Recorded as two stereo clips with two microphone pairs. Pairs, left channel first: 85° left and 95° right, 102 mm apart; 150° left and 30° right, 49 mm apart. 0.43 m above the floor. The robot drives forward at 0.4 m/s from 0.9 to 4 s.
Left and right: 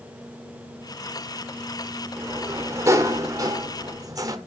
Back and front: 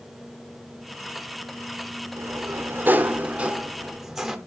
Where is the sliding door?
30° right, 0.9 m; by 4.4 s 110° right, 0.7 m.